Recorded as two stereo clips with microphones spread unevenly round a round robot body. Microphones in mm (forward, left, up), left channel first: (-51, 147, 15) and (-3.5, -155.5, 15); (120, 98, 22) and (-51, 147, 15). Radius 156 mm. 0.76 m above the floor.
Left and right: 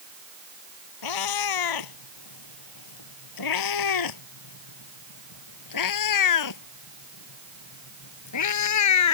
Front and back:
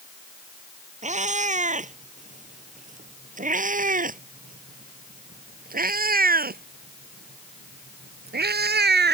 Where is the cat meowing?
115° left; by 9.1 s 135° left.